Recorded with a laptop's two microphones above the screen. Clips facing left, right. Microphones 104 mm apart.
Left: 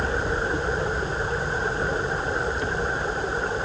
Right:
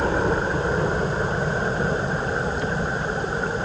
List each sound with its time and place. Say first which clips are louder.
0.0 s a helicopter: right 4 dB; 60° right (ahead or behind); by 3.6 s 55° right (ahead or behind)